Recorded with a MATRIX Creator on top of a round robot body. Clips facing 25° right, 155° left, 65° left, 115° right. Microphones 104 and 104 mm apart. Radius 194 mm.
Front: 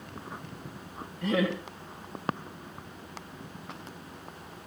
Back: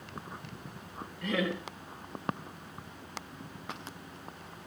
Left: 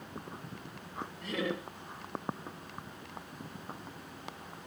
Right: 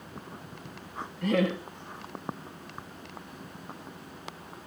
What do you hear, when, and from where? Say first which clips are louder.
1.2 s laughter: front 4 dB, right 9 dB; 95° right, 3 m